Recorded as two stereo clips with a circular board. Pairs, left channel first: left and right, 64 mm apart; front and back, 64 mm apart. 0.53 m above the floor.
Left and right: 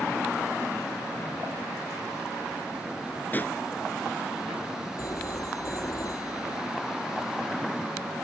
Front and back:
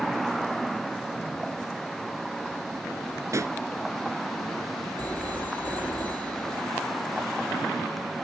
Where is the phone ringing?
65° left.